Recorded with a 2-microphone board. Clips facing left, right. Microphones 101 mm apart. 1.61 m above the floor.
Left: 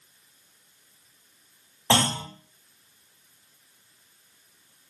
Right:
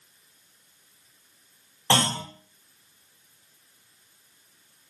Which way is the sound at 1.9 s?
10° left (ahead or behind).